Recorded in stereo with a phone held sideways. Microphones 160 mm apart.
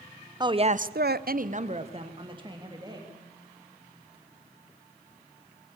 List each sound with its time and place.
0.4 s a woman speaking: 25° right (ahead or behind), 0.9 m